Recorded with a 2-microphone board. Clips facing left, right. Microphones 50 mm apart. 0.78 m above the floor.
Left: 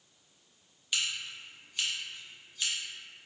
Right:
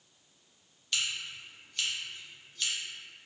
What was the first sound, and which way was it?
Scissors, 10° left (ahead or behind).